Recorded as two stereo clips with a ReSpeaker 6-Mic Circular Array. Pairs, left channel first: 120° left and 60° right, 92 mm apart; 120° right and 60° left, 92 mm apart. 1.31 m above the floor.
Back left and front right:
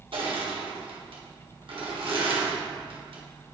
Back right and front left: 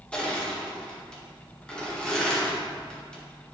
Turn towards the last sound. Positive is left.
turn(degrees=-40)